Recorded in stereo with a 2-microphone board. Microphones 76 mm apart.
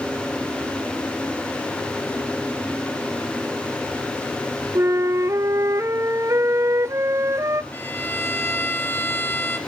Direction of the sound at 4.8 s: 40° right (ahead or behind).